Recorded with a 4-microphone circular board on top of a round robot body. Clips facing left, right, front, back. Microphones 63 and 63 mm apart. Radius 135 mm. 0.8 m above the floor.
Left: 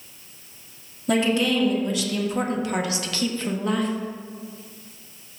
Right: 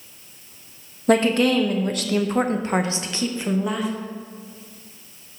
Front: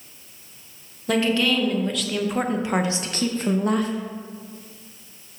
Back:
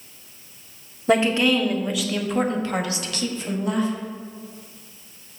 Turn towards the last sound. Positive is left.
turn(degrees=-5)